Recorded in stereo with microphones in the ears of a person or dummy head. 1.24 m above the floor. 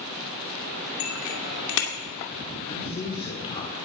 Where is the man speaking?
25° left (ahead or behind), 4.5 m.